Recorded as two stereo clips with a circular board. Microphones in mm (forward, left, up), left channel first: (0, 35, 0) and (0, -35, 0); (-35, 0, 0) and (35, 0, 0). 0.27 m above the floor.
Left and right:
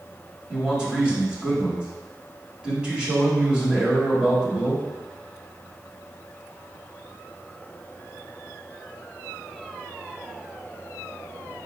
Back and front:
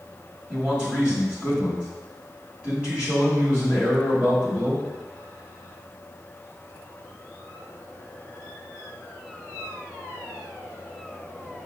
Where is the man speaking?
40° right, 1.2 m.